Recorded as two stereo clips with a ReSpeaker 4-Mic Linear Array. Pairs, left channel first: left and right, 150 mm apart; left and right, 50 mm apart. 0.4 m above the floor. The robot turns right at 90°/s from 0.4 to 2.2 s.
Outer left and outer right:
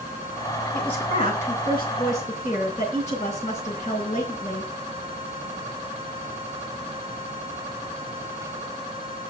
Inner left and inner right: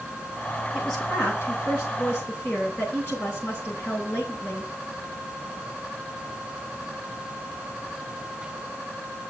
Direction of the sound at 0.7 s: Straight ahead.